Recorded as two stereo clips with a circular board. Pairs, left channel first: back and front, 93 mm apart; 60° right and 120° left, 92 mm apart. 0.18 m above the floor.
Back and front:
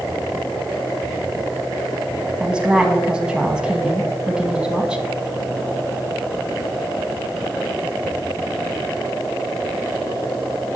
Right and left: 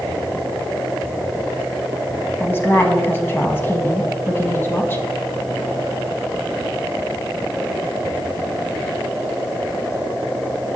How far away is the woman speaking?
About 1.3 m.